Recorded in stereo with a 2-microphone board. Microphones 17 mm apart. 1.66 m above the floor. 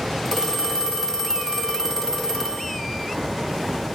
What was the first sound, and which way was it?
A phone ringing, 20° left (ahead or behind).